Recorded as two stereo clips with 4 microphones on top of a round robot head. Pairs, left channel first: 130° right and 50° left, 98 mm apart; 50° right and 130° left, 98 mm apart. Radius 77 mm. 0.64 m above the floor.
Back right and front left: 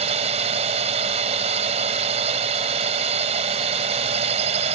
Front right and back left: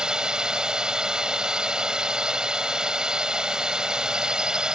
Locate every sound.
0.0 s a drone: 50° left